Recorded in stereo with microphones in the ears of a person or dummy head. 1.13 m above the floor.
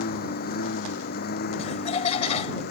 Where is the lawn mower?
55° left (ahead or behind); by 2.7 s 60° left (ahead or behind).